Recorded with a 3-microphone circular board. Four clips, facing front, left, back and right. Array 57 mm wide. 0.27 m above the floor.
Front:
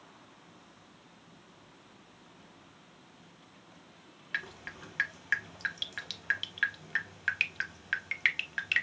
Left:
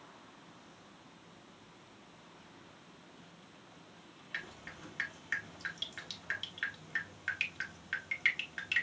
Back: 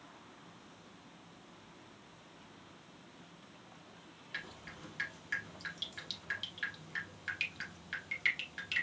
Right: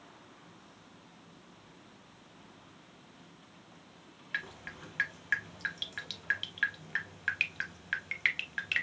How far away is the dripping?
About 0.6 m.